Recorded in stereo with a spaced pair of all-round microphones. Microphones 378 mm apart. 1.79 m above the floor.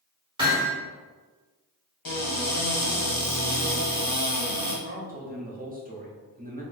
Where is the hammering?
10° right (ahead or behind), 1.6 m.